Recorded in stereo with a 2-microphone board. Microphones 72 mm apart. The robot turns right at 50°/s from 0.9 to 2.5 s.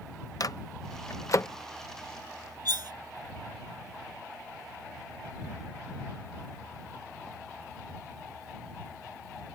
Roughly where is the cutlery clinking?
Right.